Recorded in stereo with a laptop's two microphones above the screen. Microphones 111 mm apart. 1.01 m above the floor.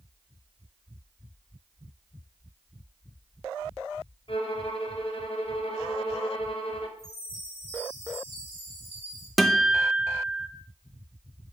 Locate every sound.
4.3 s a violin: 55° left (ahead or behind), 1.2 m
7.0 s a chime: 75° right (ahead or behind), 3 m
9.4 s a guitar: centre (ahead or behind), 0.7 m